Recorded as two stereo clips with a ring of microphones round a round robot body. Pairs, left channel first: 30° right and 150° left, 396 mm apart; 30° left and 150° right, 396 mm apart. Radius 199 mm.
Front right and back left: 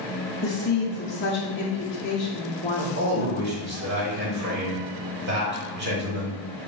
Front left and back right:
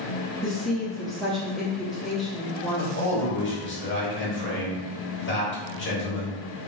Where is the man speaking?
90° left, 1.7 m.